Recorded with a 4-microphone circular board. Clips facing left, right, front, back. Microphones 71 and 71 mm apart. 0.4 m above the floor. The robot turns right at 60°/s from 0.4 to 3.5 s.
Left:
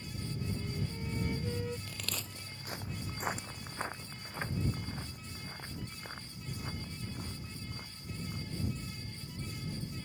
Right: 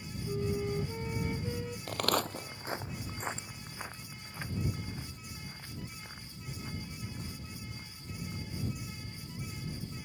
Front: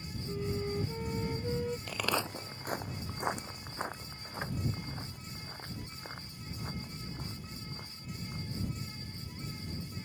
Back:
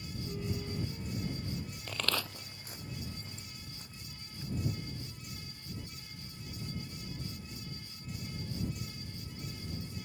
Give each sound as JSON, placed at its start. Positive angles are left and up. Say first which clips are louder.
{"t": 0.3, "sound": "a flute", "louder": "right 8 dB, front 5 dB", "azimuth_deg": -70}
{"t": 1.9, "sound": "footsteps", "louder": "right 12 dB, front 3 dB", "azimuth_deg": -90}